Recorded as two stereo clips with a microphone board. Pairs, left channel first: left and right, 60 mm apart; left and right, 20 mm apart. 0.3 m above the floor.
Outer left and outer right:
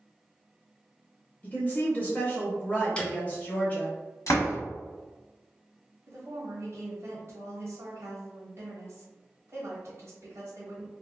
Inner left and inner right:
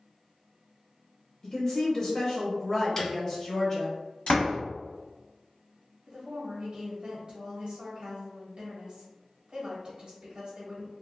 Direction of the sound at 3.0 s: 20° left (ahead or behind).